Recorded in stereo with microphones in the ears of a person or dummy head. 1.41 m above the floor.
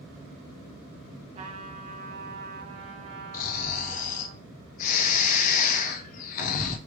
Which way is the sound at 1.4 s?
40° right (ahead or behind).